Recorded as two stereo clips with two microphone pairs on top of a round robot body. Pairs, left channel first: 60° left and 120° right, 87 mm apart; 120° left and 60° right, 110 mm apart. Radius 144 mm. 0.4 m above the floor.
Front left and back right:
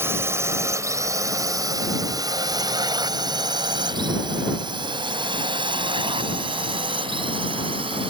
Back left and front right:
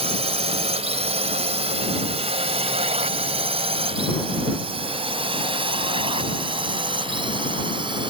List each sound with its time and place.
0.0 s a drone: 60° right; by 8.1 s 100° right